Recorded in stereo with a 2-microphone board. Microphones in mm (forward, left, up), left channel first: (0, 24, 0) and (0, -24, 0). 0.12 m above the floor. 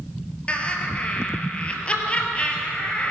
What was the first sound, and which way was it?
Laughter, 25° left (ahead or behind).